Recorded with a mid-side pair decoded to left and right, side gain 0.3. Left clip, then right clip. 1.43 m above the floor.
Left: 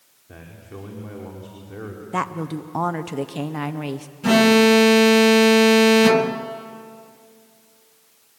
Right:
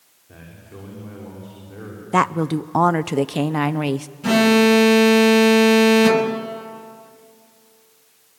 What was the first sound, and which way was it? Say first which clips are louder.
A man speaking: left 2 dB; 45° left.